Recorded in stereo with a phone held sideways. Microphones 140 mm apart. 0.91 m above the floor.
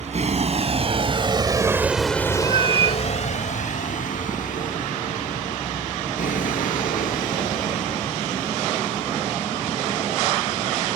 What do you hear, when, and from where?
0.0 s a vehicle: 60° right (ahead or behind); by 11.0 s 85° left
2.4 s a cat meowing: 45° right (ahead or behind)